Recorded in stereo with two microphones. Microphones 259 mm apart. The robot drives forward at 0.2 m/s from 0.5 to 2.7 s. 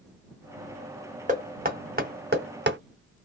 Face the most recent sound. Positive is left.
turn(degrees=-45)  # may be behind; listen again after turning